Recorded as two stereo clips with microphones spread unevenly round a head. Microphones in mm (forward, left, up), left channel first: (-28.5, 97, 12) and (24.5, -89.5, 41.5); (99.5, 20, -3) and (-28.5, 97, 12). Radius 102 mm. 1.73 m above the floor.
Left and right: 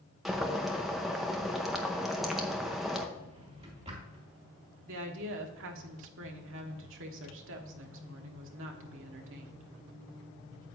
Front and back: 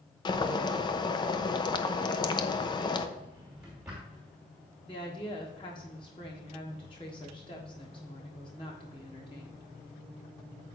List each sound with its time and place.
0.2 s boiling: 10° right, 0.7 m
3.2 s a drawer: 130° right, 2.5 m
4.9 s a woman speaking: 100° right, 1.3 m